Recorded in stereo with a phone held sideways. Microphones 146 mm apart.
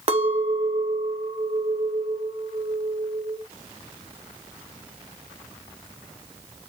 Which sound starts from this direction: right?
A clink, at 0.1 s.